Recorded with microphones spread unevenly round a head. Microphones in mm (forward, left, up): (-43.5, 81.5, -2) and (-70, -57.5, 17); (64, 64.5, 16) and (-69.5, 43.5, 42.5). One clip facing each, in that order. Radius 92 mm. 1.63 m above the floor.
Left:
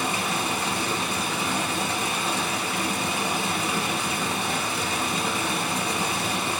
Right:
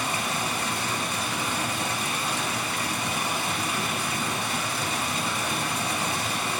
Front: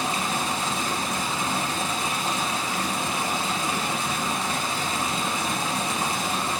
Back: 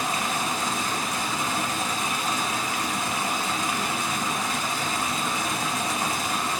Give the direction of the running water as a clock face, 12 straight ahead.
10 o'clock.